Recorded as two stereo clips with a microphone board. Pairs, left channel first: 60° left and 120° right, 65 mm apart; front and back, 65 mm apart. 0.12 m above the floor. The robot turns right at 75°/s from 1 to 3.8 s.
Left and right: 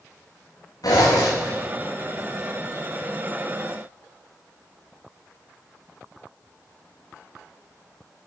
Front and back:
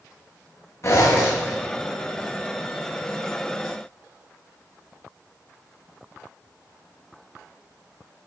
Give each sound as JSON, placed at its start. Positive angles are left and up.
{"t": 0.8, "sound": "a zipper", "azimuth_deg": 45, "distance_m": 4.0}